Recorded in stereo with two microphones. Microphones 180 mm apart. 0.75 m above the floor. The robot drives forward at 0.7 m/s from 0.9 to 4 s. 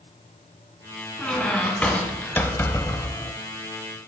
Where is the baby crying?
No baby crying in this recording.